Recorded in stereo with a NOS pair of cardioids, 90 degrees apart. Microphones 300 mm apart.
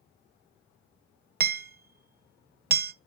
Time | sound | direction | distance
1.4 | hammering | 35° right | 0.8 m